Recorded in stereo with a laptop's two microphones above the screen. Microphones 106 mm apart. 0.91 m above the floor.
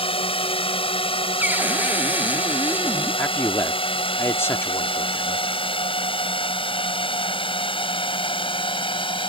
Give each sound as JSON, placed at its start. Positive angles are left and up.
{"t": 0.0, "sound": "a drone", "side_deg": 60}
{"t": 1.4, "sound": "a cupboard door", "side_deg": -15}
{"t": 3.2, "sound": "a man speaking", "side_deg": 20}